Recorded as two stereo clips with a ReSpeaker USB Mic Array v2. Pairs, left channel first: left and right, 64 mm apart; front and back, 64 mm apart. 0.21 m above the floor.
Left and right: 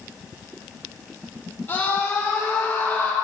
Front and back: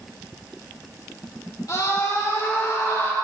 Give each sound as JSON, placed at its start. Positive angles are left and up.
{"t": 1.7, "sound": "a scream", "azimuth_deg": 30, "distance_m": 5.0}